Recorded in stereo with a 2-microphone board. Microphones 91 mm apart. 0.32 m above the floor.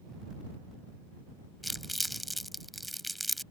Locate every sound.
1.6 s crumpling: centre (ahead or behind)